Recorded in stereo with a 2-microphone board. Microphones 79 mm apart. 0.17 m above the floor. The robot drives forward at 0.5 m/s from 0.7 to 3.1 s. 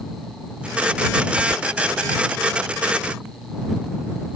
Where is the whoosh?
Centre (ahead or behind).